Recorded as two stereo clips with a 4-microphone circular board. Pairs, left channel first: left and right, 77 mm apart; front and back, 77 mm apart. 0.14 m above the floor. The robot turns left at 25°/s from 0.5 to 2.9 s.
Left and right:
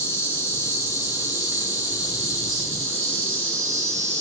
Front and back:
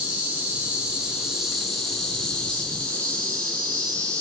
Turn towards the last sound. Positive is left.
turn(degrees=60)